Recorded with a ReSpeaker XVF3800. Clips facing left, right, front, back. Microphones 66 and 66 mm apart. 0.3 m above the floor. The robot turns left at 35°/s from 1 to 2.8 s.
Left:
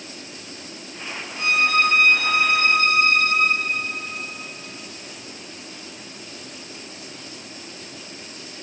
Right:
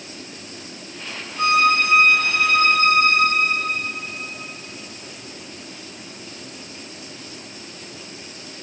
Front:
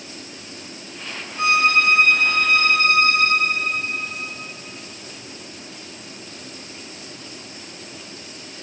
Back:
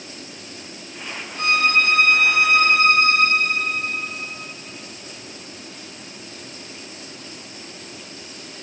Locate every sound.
1.4 s a violin: 70° right, 1.1 m; by 3.9 s 120° right, 1.1 m